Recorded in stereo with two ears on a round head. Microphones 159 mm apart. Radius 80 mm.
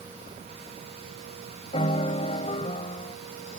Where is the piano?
35° left (ahead or behind).